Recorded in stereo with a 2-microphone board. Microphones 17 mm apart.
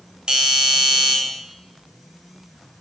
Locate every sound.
0.3 s a doorbell: 60° right (ahead or behind), 3 m